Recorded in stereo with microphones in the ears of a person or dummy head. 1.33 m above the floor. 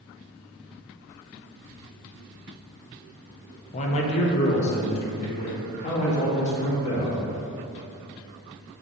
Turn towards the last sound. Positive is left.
turn(degrees=35)  # may be behind; listen again after turning